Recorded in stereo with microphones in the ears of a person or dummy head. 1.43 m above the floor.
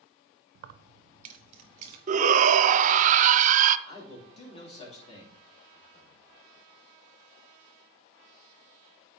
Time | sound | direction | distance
0.6 | keys jangling | 60° right (ahead or behind) | 0.6 m
2.1 | a shout | 35° right (ahead or behind) | 0.5 m
3.9 | a man speaking | 30° left (ahead or behind) | 3 m